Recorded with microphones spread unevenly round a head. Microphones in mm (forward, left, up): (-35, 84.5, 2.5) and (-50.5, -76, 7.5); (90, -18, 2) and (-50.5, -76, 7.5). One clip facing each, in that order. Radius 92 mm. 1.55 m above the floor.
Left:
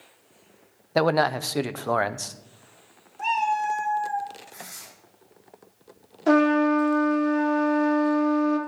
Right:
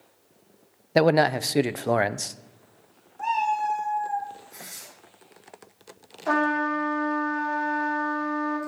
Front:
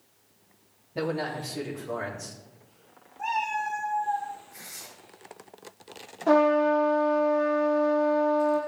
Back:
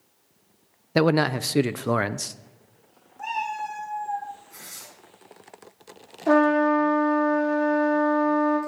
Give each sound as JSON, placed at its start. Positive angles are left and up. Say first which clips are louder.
{"t": 0.9, "sound": "a man speaking", "louder": "right 2 dB, back 9 dB", "azimuth_deg": -165, "distance_m": 0.5}
{"t": 3.2, "sound": "a cat meowing", "louder": "even, even", "azimuth_deg": 145, "distance_m": 4.0}
{"t": 4.5, "sound": "tearing paper", "louder": "left 2 dB, back 1 dB", "azimuth_deg": -165, "distance_m": 7.0}
{"t": 6.3, "sound": "a trumpet", "louder": "left 7 dB, back 2 dB", "azimuth_deg": 135, "distance_m": 3.5}